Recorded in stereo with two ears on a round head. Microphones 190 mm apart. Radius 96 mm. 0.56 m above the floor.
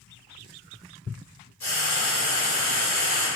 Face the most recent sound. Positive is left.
turn(degrees=45)  # may be behind; listen again after turning